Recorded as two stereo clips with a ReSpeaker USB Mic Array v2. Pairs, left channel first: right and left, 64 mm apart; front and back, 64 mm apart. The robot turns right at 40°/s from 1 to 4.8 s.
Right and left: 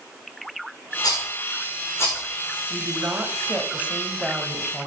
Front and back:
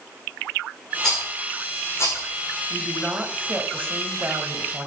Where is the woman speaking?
100° left, 1.3 m; by 4.9 s 175° right, 1.3 m.